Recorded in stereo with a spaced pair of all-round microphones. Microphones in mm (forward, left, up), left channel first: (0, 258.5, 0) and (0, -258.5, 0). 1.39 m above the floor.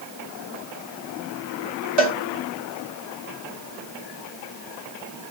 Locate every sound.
2.0 s a cowbell: 60° right (ahead or behind), 1.8 m